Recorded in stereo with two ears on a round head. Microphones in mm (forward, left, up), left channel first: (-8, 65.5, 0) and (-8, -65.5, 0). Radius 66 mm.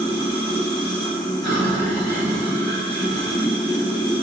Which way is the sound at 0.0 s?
25° left (ahead or behind).